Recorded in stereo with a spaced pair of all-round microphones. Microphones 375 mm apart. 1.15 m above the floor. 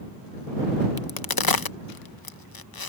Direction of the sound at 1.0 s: 70° left (ahead or behind).